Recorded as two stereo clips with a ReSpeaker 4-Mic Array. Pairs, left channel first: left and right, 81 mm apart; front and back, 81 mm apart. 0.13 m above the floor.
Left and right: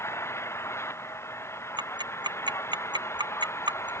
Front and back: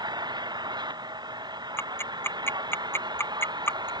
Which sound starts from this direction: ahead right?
Ticking, at 1.8 s.